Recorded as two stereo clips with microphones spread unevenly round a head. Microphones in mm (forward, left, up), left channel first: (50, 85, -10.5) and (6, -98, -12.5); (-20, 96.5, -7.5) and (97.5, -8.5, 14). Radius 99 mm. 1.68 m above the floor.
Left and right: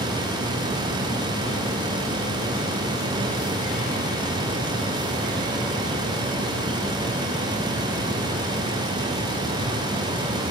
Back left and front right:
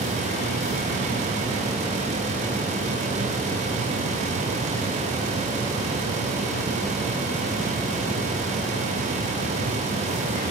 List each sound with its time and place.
Only background noise.